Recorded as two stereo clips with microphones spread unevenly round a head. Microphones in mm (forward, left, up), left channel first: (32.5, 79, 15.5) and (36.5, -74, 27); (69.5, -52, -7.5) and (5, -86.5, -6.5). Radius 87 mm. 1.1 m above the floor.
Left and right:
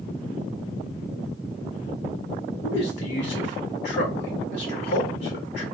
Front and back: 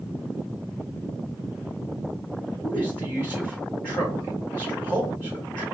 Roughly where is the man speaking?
Left.